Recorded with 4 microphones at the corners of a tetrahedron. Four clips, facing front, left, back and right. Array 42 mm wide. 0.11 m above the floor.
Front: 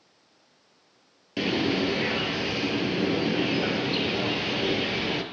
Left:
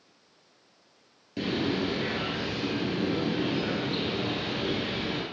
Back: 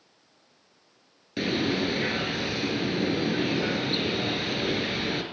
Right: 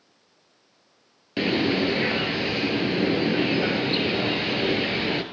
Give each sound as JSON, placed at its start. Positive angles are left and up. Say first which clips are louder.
{"t": 1.4, "sound": "a bird", "louder": "right 6 dB, front 1 dB", "azimuth_deg": -85, "distance_m": 0.8}